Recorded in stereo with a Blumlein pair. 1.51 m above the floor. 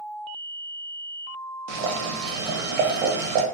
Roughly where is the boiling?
Ahead right.